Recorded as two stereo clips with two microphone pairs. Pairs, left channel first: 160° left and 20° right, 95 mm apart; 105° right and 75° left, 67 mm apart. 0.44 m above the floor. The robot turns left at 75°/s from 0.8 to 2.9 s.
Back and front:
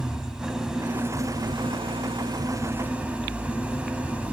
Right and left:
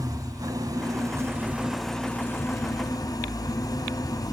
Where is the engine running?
60° left, 1.7 m; by 4.3 s 95° right, 1.7 m.